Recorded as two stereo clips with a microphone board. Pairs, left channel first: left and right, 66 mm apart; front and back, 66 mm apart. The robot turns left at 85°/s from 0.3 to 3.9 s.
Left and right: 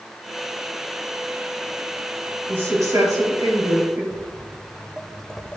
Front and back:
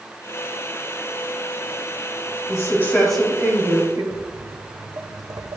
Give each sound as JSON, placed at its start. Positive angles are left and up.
{"t": 2.5, "sound": "a woman speaking", "azimuth_deg": -30, "distance_m": 3.5}
{"t": 4.1, "sound": "footsteps", "azimuth_deg": -145, "distance_m": 1.3}